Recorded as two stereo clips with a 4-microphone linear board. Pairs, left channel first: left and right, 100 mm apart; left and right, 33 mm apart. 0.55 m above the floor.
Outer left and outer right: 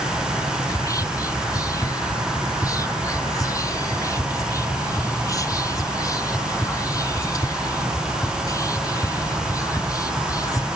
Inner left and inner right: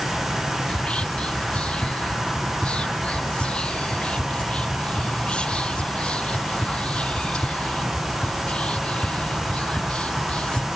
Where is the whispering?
35° left (ahead or behind), 1.0 m.